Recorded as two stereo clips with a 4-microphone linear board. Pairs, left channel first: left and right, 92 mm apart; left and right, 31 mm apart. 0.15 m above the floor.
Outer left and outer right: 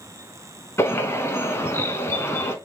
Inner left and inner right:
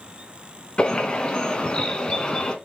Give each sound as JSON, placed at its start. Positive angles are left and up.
{"t": 0.8, "sound": "a bird", "side_deg": 30, "distance_m": 0.6}